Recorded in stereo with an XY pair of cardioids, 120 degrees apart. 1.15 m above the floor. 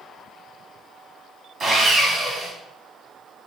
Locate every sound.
1.6 s sawing: 40° right, 1.5 m